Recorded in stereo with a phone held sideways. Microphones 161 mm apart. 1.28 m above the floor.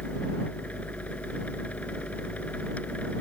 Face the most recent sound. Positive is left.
turn(degrees=10)  # may be behind; listen again after turning